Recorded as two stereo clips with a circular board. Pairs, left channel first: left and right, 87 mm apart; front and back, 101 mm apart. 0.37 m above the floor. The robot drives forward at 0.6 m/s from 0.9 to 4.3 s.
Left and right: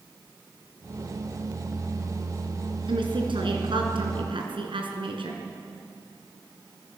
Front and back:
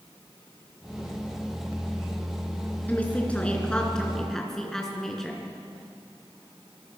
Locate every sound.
2.9 s a woman speaking: 75° right, 4 m; by 5.4 s 85° right, 4 m